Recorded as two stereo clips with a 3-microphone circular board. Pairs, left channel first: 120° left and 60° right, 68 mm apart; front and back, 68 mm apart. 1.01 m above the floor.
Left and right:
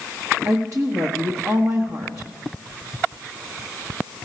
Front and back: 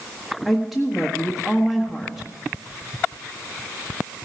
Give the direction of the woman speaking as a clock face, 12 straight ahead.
3 o'clock.